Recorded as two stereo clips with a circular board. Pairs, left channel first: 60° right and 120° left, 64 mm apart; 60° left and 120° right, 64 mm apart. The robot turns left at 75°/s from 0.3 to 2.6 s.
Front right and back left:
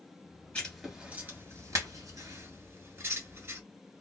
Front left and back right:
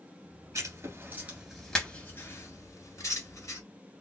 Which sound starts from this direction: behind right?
Writing, at 0.6 s.